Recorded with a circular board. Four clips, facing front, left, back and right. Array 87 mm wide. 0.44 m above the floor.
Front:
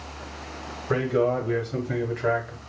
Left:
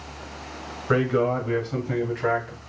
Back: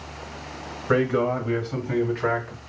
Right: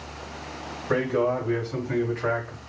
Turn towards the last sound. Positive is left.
turn(degrees=155)